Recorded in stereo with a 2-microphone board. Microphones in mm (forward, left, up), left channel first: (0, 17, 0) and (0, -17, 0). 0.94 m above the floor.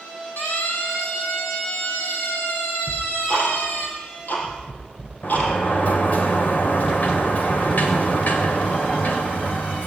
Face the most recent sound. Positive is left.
turn(degrees=55)  # may be behind; listen again after turning